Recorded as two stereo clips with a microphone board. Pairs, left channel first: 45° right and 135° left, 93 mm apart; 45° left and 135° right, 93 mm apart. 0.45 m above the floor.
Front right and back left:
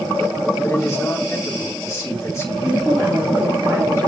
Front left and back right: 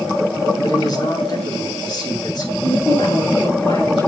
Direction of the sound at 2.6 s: 65° left.